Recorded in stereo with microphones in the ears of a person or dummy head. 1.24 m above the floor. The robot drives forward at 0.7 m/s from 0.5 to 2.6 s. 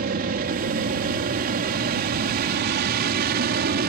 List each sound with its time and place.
0.0 s an aircraft: 50° right (ahead or behind)